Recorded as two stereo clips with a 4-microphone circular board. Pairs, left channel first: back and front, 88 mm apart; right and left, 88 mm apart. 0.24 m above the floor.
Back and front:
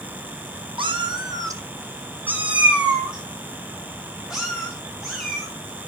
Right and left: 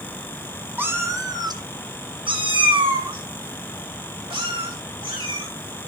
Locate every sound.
0.8 s a cat meowing: 20° left, 0.9 m; by 5.5 s 95° left, 4 m